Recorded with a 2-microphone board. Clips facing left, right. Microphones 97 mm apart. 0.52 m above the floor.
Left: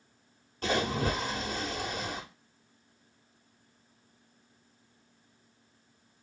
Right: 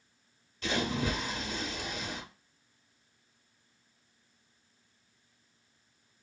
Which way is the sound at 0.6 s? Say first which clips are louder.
Left 2 dB; 45° left (ahead or behind).